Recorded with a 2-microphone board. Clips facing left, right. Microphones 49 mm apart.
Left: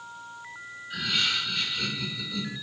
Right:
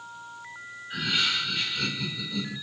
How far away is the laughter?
About 3.5 m.